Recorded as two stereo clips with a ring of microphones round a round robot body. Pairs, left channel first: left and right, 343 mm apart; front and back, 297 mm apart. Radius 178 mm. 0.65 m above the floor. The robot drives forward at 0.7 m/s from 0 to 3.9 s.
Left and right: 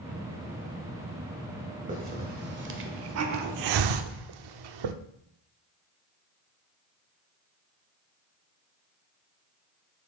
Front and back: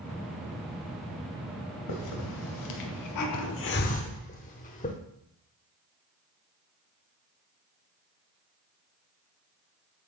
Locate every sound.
1.9 s a hiss: 25° right, 1.8 m; by 5.0 s 70° right, 0.8 m